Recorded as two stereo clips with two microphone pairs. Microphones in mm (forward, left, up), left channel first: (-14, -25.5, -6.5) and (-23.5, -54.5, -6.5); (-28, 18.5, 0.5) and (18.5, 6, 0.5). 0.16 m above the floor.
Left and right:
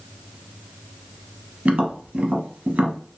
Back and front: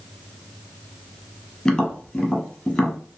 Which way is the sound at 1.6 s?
120° right.